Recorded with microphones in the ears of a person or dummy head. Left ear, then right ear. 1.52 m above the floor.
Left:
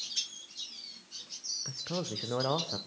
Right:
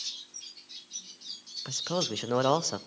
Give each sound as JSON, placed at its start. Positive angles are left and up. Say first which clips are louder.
{"t": 1.6, "sound": "a man speaking", "louder": "right 6 dB", "side_deg": -75, "distance_m": 1.0}